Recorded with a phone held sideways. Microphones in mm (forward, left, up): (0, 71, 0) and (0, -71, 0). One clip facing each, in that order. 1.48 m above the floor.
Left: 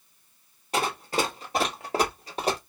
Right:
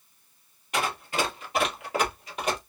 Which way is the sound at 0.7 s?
35° left (ahead or behind).